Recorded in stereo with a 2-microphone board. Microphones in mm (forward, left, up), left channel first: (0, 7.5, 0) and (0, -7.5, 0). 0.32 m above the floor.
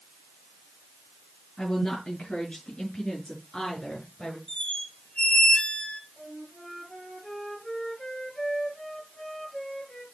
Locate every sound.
1.6 s a woman speaking: 70° left (ahead or behind), 5.5 m; by 4.4 s 75° left (ahead or behind), 6 m
4.5 s a squeak: 75° left (ahead or behind), 1.6 m
6.2 s a flute: 40° left (ahead or behind), 3.5 m